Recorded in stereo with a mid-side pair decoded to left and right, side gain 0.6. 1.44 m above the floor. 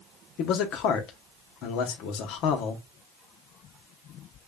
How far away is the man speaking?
About 0.9 m.